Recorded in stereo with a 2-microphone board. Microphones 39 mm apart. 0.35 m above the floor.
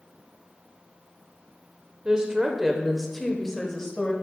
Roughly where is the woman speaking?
Right.